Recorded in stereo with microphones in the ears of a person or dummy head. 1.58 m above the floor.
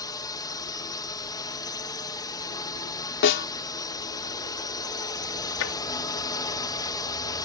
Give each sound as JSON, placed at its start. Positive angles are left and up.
{"t": 0.0, "sound": "a drone", "side_deg": 15}
{"t": 3.2, "sound": "a snare drum", "side_deg": 65}
{"t": 5.6, "sound": "tapping", "side_deg": 85}